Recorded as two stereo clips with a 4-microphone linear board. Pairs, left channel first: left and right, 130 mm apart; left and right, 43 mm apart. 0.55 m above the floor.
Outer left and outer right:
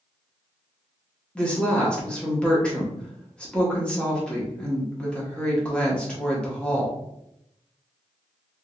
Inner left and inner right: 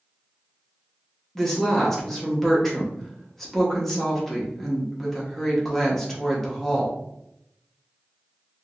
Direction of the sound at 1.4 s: 10° left (ahead or behind).